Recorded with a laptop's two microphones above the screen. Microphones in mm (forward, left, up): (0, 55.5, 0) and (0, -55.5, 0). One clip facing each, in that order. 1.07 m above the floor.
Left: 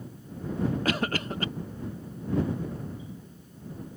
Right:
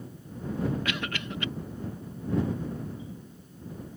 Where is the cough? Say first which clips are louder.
Left 5 dB; 40° left (ahead or behind).